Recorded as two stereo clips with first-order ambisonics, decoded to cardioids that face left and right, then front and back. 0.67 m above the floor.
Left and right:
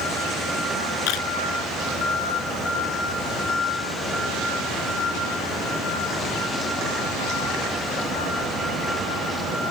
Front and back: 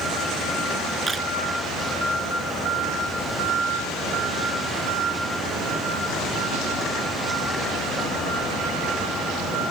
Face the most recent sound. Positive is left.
turn(degrees=100)